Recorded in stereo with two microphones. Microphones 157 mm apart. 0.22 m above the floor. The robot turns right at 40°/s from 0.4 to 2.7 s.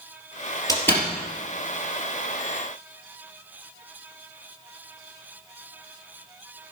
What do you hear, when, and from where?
0.7 s a door slam: 20° left (ahead or behind), 3 m; by 1.1 s 5° left (ahead or behind), 3 m